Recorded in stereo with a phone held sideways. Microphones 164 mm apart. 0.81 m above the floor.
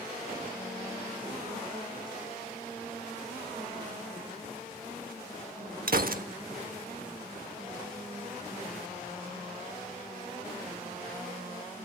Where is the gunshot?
65° right (ahead or behind), 0.8 m.